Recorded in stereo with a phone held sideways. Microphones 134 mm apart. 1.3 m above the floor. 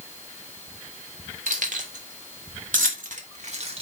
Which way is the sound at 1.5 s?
75° right (ahead or behind).